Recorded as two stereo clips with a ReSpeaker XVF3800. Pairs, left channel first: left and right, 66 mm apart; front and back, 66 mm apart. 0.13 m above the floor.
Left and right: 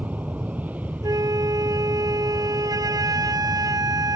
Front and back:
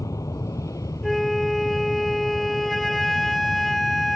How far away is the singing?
No singing in this recording.